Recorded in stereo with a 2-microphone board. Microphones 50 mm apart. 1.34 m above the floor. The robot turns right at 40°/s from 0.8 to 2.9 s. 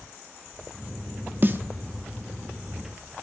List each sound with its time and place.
1.4 s a snare drum: 40° right (ahead or behind), 1.4 m; by 1.6 s 45° right (ahead or behind), 1.4 m